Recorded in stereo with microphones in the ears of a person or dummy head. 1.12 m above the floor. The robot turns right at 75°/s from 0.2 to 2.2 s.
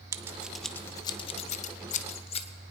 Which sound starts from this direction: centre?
Scissors, at 0.1 s.